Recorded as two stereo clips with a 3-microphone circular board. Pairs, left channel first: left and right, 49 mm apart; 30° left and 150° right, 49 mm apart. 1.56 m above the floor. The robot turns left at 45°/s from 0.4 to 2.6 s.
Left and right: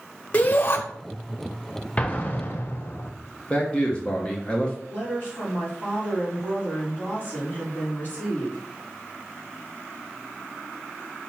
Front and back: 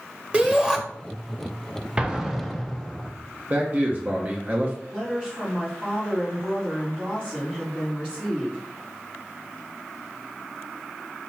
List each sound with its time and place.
0.3 s a shout: 150° left, 1.2 m; by 0.8 s 130° left, 1.2 m
2.0 s an explosion: 145° left, 0.8 m; by 3.1 s 120° left, 0.8 m
3.5 s a man speaking: 155° left, 1.1 m
4.9 s a woman speaking: 145° left, 4 m